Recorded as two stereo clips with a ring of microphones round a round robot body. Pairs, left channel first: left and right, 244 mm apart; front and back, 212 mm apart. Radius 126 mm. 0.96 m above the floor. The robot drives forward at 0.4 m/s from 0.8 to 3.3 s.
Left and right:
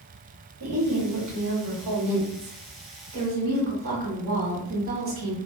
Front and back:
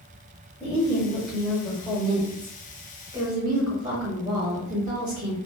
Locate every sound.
0.6 s a woman speaking: 80° right, 1.3 m; by 5.4 s 125° right, 1.5 m